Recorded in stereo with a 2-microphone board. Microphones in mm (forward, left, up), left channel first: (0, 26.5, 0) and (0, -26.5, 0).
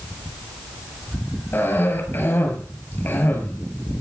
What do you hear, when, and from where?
1.5 s a cough: 40° left (ahead or behind), 8 m